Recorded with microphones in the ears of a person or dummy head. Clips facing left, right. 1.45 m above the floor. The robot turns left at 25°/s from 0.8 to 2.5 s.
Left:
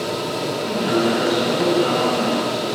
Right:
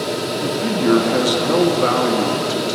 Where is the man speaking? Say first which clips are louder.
Right 7 dB; 75° right, 2 m; by 2.8 s 120° right, 2 m.